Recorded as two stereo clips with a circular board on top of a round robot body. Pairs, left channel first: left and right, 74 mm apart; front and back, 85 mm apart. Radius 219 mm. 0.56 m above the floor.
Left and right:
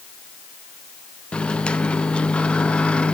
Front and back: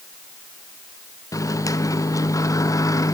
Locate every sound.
1.3 s a microwave: 20° left, 1.1 m